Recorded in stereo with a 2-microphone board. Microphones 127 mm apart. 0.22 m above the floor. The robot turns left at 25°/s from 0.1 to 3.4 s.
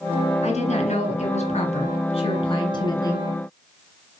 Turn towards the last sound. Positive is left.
turn(degrees=25)